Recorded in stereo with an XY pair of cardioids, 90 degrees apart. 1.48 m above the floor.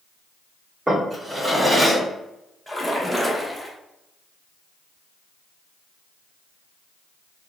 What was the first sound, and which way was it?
A drawer, 15° right.